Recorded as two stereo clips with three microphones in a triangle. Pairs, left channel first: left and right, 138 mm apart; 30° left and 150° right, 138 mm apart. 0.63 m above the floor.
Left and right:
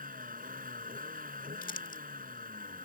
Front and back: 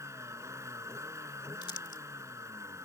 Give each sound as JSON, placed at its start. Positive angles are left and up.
{"t": 0.0, "sound": "a vehicle", "azimuth_deg": -80}
{"t": 1.6, "sound": "crumpling", "azimuth_deg": 90}